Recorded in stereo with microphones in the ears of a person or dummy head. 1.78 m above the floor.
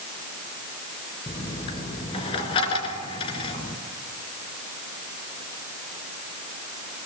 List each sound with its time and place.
1.3 s a dropped coin: 25° left (ahead or behind), 2.5 m